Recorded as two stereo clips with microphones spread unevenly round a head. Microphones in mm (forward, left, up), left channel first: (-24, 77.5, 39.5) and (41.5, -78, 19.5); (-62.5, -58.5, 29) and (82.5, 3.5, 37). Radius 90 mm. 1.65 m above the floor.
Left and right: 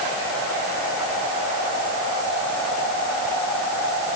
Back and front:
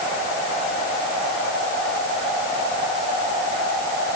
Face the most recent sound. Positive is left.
No sound to turn to.